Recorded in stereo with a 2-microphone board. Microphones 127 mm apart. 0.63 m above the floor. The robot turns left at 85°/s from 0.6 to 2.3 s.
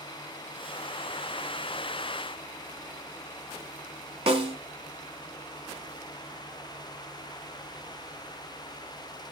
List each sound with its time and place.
4.3 s a snare drum: 45° right (ahead or behind), 1.1 m